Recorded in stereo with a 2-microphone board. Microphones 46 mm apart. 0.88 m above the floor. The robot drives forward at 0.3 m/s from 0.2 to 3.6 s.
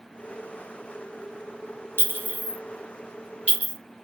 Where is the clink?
50° right (ahead or behind), 0.7 m; by 3.7 s 30° right (ahead or behind), 1.0 m.